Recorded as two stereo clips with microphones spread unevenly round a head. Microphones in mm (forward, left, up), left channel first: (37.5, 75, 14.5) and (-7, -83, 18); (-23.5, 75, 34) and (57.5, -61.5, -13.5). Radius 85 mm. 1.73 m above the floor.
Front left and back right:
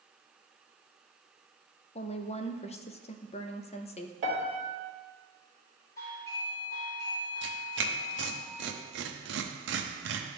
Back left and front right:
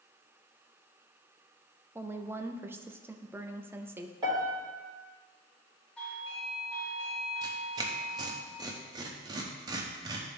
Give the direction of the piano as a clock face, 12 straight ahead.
4 o'clock.